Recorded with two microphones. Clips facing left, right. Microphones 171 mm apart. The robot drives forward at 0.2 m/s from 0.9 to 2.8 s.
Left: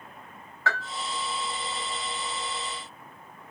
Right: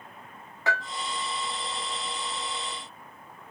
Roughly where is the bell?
Centre.